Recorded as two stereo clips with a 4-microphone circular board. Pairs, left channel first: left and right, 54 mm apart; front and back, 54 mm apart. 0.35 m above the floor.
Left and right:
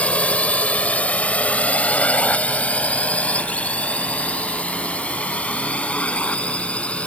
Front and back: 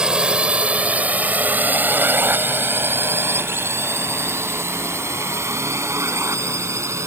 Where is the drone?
125° left; by 7.1 s 155° left.